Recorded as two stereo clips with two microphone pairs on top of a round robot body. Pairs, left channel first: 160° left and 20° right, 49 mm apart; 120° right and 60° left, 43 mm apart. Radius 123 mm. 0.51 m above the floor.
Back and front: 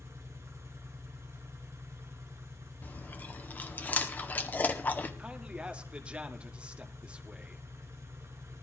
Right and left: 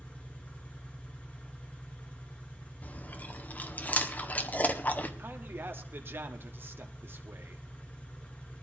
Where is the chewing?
160° right, 1.8 m.